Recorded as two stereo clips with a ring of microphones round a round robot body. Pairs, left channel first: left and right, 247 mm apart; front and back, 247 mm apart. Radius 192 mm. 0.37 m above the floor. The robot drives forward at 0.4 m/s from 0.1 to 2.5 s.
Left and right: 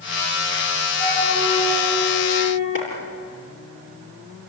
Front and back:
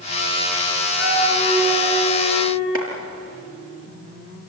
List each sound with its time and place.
1.0 s a flute: 175° left, 8 m
2.8 s a clap: 160° left, 7 m